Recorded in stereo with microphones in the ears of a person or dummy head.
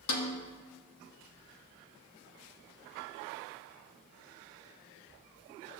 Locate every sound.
0.1 s a snare drum: 75° left (ahead or behind), 1.8 m